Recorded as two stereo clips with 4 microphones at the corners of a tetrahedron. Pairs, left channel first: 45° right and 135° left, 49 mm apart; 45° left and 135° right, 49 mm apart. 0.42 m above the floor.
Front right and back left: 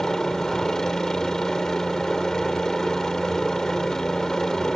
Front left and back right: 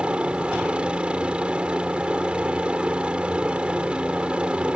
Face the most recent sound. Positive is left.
turn(degrees=-110)